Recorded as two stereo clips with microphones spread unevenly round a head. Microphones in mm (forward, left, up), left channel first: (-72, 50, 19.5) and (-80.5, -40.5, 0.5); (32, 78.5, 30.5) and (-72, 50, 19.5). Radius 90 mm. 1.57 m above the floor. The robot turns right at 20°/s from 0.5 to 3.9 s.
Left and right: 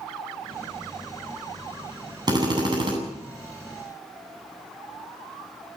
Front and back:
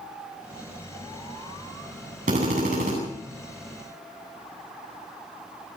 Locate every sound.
2.3 s a drill: 140° right, 8.5 m; by 2.9 s 125° right, 8.5 m